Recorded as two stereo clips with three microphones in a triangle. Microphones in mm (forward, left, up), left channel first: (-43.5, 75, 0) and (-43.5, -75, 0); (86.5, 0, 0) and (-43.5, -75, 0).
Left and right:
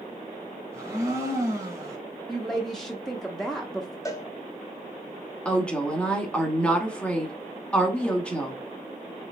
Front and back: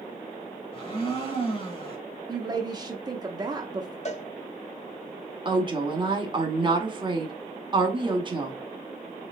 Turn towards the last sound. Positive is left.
turn(degrees=170)